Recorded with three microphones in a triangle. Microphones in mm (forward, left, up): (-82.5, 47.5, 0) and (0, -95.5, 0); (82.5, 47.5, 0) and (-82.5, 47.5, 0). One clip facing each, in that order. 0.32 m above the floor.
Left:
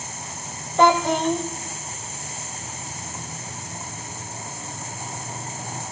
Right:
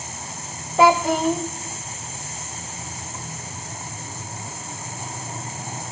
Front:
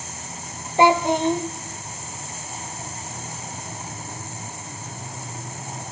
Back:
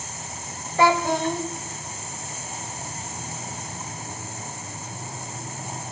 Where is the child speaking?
15° left, 0.5 m.